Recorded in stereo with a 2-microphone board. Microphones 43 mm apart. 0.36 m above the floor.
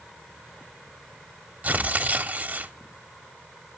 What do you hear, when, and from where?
1.6 s tearing paper: 40° right (ahead or behind), 0.9 m